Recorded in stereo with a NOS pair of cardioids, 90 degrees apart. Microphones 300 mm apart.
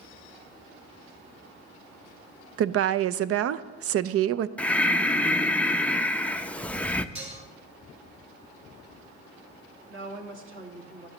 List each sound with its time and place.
2.6 s a woman speaking: 55° right, 0.5 m
4.6 s breathing: 5° left, 0.5 m
7.2 s dishes clattering: 20° right, 4 m
9.9 s a woman speaking: 45° right, 2.5 m